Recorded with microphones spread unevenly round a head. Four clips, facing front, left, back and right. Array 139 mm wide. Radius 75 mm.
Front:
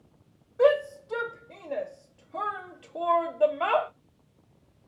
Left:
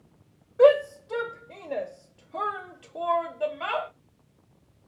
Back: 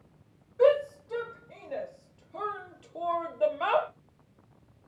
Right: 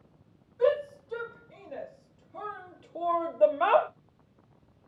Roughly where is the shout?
Left.